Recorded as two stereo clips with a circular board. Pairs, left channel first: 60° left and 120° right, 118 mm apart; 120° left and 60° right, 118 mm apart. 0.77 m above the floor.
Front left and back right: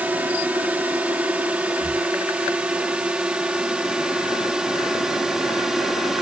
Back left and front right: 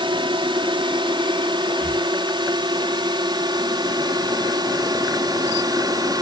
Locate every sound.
0.0 s a drone: 45° right; by 6.2 s 35° right
1.8 s breathing: 145° right